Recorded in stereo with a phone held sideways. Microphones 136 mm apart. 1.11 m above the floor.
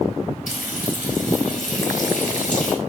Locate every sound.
0.5 s frying: 75° left (ahead or behind), 4.5 m